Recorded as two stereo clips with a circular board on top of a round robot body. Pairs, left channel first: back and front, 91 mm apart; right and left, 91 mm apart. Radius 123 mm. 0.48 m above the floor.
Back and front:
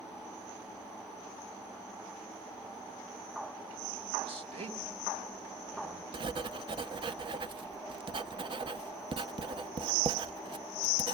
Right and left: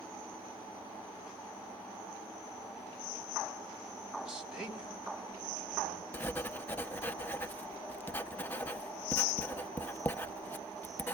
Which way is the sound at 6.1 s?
20° right.